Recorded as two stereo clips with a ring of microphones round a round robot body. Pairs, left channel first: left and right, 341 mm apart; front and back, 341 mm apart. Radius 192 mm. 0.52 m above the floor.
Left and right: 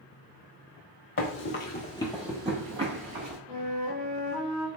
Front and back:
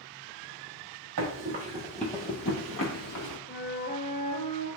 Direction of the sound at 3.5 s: 45° right.